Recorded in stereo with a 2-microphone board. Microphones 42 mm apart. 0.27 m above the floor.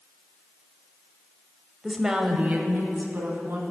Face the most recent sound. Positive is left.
turn(degrees=-60)  # may be behind; listen again after turning